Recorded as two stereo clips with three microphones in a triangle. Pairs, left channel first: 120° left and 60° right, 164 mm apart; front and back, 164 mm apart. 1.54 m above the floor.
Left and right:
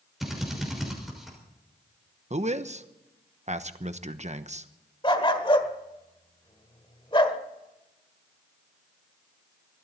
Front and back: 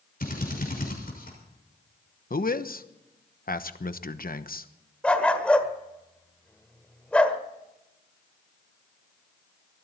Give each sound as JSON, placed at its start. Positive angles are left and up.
{"t": 0.2, "sound": "a drill", "azimuth_deg": 30, "distance_m": 6.0}
{"t": 2.3, "sound": "a man speaking", "azimuth_deg": -20, "distance_m": 1.0}
{"t": 5.0, "sound": "a dog barking", "azimuth_deg": 80, "distance_m": 1.6}